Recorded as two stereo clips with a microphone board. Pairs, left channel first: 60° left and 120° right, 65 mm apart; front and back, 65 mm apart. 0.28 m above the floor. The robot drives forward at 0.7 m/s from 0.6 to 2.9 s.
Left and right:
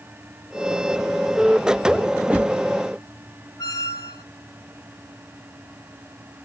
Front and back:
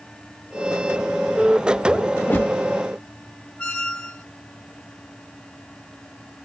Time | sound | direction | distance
2.2 | a whoosh | 45° right | 0.6 m
3.6 | a squeak | 80° left | 0.8 m